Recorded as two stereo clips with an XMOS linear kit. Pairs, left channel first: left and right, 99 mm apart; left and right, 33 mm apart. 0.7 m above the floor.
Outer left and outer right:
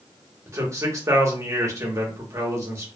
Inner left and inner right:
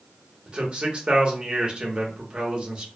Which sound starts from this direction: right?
A man speaking, at 0.5 s.